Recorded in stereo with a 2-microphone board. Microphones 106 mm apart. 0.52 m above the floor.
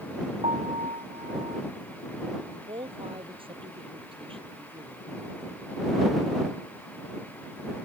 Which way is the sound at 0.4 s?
85° right.